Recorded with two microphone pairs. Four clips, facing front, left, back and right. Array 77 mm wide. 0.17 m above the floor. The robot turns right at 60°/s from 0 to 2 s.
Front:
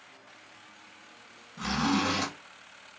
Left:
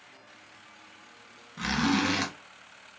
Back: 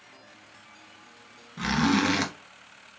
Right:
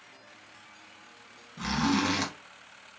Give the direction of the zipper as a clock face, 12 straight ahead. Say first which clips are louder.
Left 1 dB, back 4 dB; 8 o'clock.